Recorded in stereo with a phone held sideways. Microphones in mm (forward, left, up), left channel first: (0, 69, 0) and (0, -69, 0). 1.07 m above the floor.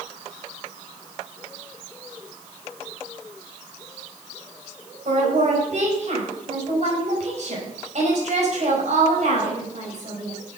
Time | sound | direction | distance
5.0 | a woman speaking | 55° right (ahead or behind) | 5 m